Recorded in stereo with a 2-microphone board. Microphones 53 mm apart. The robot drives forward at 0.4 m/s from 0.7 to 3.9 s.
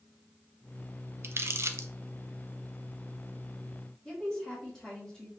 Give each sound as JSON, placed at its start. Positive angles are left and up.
{"t": 1.2, "sound": "crumpling", "side_deg": -50, "distance_m": 0.5}
{"t": 4.0, "sound": "a woman speaking", "side_deg": 10, "distance_m": 1.6}